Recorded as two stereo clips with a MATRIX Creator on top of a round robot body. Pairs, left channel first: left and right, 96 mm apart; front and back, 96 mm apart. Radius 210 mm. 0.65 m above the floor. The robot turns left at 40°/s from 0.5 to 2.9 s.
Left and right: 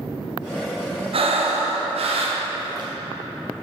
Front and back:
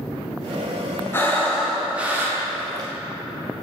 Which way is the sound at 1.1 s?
65° right.